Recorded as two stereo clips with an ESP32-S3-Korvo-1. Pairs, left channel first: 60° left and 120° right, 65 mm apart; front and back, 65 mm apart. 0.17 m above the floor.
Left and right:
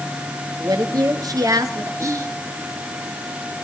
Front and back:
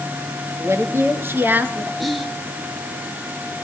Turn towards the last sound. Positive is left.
turn(degrees=-85)